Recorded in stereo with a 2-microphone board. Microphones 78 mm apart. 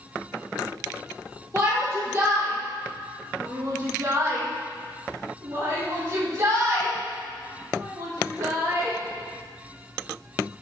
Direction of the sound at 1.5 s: 35° right (ahead or behind).